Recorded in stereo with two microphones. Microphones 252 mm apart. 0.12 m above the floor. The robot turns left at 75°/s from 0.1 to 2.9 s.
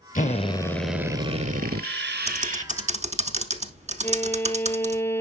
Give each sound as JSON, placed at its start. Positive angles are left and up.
{"t": 0.1, "sound": "a drill", "azimuth_deg": 55, "distance_m": 1.0}
{"t": 2.3, "sound": "typing on a keyboard", "side_deg": -25, "distance_m": 0.9}
{"t": 4.0, "sound": "a violin", "side_deg": 10, "distance_m": 1.1}